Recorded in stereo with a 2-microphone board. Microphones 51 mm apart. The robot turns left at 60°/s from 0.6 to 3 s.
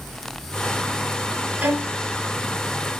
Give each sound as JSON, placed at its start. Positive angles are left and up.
{"t": 1.6, "sound": "a violin", "side_deg": -25, "distance_m": 1.5}